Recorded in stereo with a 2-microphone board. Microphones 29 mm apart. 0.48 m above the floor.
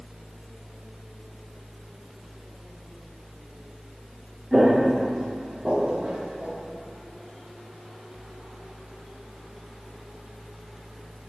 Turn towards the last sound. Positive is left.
turn(degrees=-25)  # may be behind; listen again after turning